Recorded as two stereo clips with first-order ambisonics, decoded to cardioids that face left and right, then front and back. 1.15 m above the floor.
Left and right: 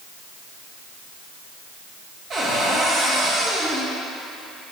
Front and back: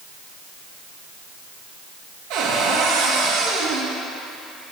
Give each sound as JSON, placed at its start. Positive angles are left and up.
{"t": 2.3, "sound": "a cupboard door", "azimuth_deg": -150, "distance_m": 2.5}